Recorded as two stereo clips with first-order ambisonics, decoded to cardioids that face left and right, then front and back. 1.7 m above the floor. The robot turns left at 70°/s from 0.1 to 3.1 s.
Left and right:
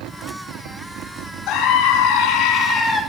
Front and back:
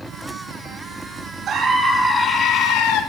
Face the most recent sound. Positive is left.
turn(degrees=10)